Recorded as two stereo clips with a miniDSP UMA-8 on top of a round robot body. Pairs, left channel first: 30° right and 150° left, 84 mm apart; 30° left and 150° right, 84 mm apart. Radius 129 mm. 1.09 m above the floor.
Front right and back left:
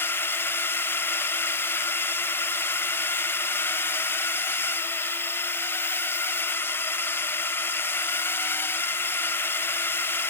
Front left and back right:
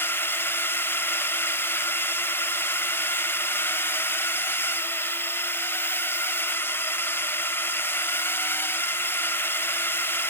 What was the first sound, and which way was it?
A drone, straight ahead.